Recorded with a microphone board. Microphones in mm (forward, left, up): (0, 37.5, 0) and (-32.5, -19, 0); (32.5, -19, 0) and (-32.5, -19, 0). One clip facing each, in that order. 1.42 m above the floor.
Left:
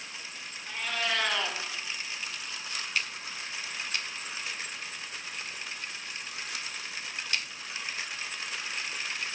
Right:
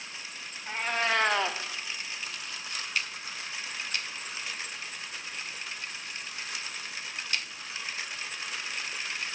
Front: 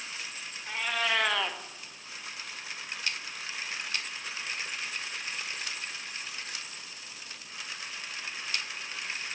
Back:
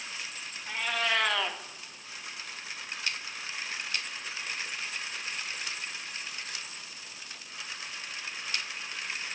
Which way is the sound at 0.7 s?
85° right.